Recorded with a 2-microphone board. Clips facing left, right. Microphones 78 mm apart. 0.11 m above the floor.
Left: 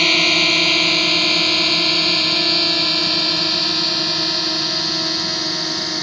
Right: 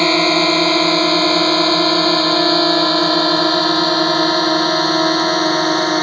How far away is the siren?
I don't hear a siren.